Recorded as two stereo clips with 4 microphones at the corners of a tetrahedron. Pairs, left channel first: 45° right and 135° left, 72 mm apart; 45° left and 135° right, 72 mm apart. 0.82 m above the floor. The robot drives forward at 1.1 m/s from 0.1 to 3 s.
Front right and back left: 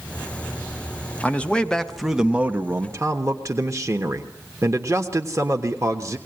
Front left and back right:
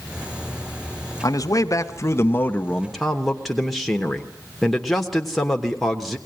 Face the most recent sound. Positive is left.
turn(degrees=135)